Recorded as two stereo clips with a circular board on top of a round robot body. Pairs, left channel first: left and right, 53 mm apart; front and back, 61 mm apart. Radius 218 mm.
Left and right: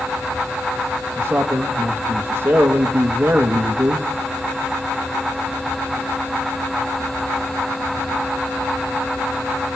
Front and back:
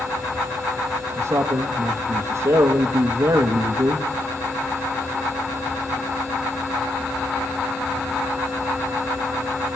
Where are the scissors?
No scissors in this recording.